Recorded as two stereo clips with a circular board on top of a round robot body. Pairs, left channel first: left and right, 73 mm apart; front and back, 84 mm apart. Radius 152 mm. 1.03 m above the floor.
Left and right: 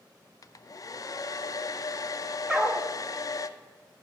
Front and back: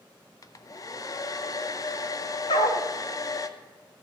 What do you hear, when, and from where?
0.4 s a hair dryer: 50° left, 0.6 m
2.5 s a dog barking: 10° right, 0.5 m